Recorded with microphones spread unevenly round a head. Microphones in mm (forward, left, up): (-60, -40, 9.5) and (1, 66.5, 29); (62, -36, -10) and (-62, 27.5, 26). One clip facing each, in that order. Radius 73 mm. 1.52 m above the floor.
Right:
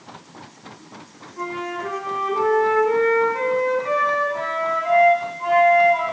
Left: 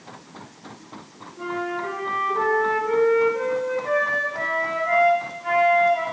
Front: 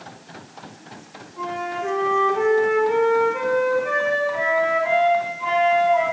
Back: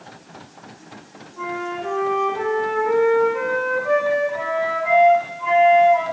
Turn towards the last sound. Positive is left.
turn(degrees=-120)